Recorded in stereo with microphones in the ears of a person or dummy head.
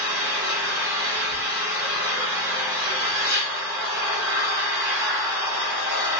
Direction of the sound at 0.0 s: 20° right (ahead or behind).